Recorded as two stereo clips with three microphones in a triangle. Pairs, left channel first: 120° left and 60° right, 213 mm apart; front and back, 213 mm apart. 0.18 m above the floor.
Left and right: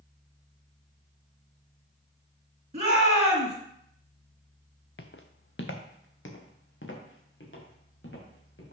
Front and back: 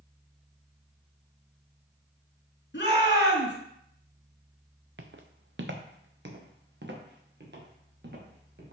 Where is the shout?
15° right, 2.5 m.